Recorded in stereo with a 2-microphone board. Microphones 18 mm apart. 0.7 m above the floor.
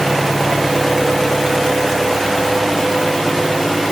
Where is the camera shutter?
No camera shutter in this recording.